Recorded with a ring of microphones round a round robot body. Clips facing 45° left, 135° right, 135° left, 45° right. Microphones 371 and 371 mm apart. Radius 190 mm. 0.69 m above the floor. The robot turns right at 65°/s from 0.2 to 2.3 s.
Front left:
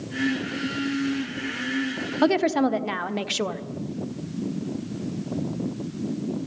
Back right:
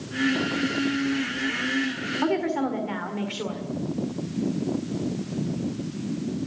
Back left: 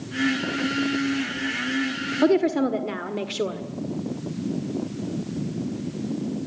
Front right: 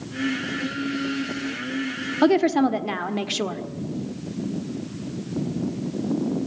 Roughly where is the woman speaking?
Ahead.